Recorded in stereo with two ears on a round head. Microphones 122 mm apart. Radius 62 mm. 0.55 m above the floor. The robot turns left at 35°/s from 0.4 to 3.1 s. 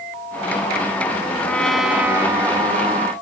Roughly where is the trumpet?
Ahead.